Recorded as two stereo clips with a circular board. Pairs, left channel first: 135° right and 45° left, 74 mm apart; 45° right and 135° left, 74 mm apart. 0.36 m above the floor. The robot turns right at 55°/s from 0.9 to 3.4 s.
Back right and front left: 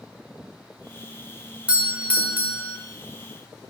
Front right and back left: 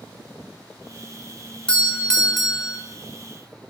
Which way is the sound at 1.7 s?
5° left.